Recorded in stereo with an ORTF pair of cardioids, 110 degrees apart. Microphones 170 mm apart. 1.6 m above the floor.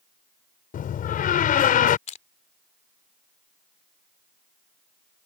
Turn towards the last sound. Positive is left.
turn(degrees=45)